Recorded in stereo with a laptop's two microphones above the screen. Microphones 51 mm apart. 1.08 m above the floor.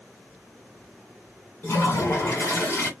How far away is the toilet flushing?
About 1.8 m.